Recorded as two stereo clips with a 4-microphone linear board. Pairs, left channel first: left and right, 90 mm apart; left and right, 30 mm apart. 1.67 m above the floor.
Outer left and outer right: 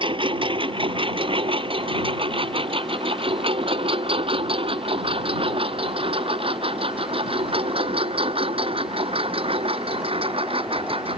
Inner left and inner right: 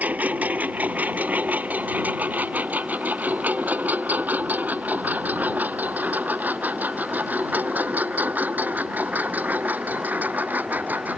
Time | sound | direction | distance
0.0 | a lawn mower | 65° right (ahead or behind) | ?